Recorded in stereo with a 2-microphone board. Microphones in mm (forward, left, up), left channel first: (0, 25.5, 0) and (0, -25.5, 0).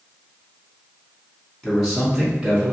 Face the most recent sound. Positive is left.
turn(degrees=-15)  # may be behind; listen again after turning